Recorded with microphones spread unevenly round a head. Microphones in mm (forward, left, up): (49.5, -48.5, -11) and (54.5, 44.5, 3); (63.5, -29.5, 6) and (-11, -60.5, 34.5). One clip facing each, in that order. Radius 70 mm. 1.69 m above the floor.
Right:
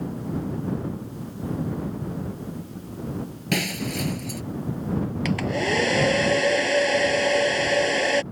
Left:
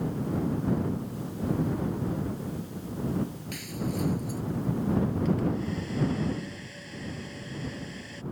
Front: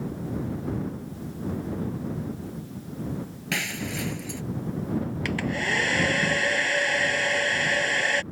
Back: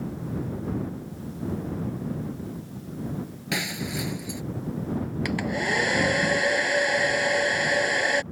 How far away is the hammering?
No hammering in this recording.